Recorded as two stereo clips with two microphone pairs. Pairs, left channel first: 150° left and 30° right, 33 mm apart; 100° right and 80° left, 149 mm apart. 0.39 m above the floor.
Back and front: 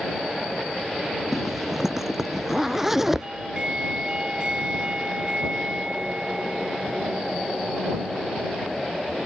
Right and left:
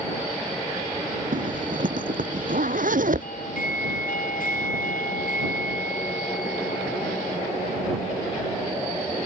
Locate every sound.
1.3 s a zipper: 55° left
3.2 s a doorbell: 90° right